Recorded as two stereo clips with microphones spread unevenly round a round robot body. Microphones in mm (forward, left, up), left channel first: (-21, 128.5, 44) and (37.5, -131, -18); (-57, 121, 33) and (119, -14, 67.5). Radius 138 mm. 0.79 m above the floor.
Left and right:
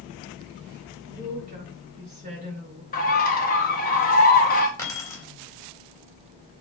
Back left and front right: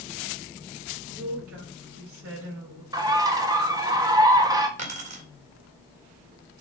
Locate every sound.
1.1 s a woman speaking: 15° right, 4 m
2.9 s a bird: 40° left, 1.5 m
4.8 s keys jangling: 20° left, 3 m